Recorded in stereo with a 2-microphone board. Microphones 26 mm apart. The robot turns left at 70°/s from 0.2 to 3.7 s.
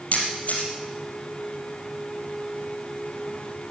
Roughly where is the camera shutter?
Left.